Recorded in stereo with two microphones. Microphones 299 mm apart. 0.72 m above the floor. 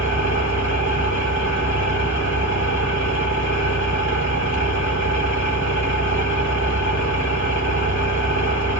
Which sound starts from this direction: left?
An engine running, at 0.0 s.